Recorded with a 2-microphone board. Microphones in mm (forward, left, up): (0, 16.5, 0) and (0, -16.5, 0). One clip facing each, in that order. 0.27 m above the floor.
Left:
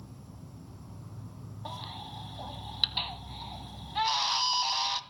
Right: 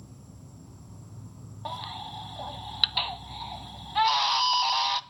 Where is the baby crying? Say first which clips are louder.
Right 5 dB; 20° right (ahead or behind), 0.7 m.